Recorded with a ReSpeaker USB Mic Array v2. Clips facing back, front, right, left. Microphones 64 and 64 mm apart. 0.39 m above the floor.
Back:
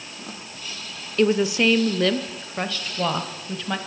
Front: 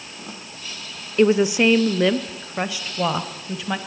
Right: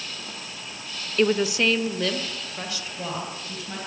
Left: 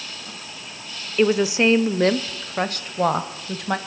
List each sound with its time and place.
1.2 s a woman speaking: 25° left, 0.9 m; by 3.8 s 85° left, 2 m